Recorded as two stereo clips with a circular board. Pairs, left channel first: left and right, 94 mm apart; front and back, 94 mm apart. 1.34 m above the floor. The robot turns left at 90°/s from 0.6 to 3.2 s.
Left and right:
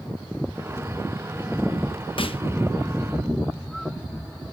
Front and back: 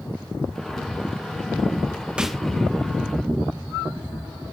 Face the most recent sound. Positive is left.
turn(degrees=10)